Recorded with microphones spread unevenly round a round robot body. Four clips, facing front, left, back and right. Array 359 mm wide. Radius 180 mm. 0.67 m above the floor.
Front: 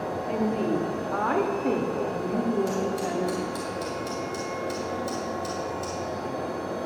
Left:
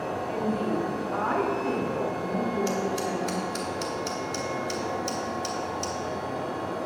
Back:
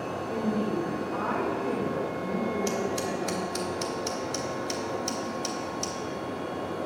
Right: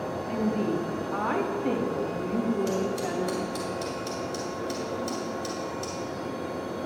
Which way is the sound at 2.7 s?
170° right.